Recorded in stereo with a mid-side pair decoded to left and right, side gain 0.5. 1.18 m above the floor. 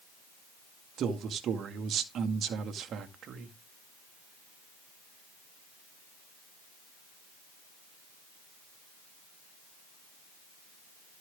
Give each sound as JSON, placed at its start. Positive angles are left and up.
{"t": 1.0, "sound": "a man speaking", "azimuth_deg": -55, "distance_m": 2.0}